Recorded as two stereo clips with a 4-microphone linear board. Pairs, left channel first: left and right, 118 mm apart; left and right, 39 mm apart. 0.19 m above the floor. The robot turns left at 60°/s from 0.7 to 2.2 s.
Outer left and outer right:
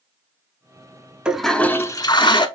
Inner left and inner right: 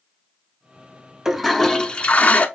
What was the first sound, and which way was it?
A toilet flushing, 170° right.